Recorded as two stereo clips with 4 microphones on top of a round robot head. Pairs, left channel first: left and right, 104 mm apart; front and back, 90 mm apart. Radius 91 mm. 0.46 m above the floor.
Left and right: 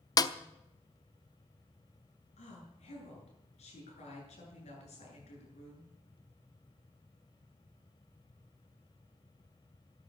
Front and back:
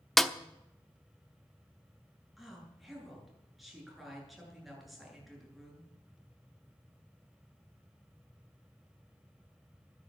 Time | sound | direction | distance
0.2 | a snare drum | 85° left | 1.0 m
2.4 | a woman speaking | 90° left | 9 m